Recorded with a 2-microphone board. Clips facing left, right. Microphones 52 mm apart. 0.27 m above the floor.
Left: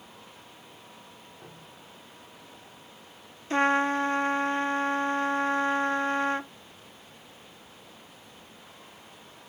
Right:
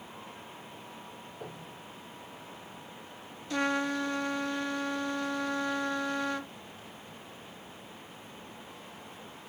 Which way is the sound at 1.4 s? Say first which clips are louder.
Right 7 dB; 85° right.